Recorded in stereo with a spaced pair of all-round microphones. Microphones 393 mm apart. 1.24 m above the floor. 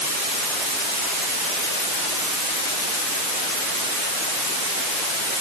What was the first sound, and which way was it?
Only background noise.